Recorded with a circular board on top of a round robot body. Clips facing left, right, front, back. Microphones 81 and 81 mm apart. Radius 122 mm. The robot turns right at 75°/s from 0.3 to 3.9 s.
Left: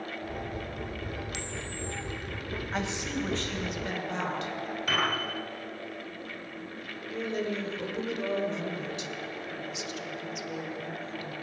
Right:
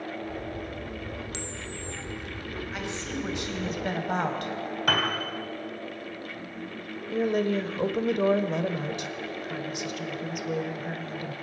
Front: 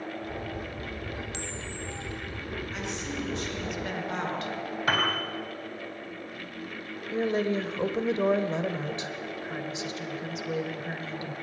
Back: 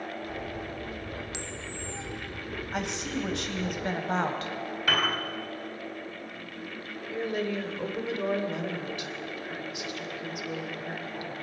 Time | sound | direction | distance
1.3 | a camera shutter | 120° right | 1.3 m
2.7 | a woman speaking | 145° left | 3.5 m
4.9 | a piano | 60° right | 4 m
7.1 | a woman speaking | 60° right | 1.9 m